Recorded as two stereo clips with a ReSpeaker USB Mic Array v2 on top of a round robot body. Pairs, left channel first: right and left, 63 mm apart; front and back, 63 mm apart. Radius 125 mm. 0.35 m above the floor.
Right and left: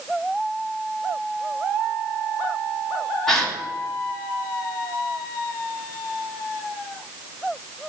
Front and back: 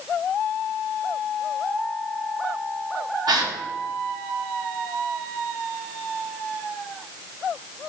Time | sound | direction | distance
3.3 | a gasp | 175° right | 1.6 m